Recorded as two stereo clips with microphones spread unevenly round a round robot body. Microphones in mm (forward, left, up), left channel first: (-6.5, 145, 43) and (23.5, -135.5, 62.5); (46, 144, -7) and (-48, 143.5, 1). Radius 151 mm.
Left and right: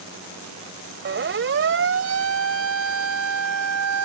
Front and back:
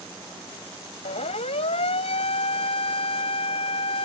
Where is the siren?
30° right; by 4.1 s 50° right.